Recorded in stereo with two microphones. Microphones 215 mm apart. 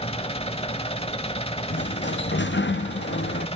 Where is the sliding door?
65° left (ahead or behind), 0.6 m.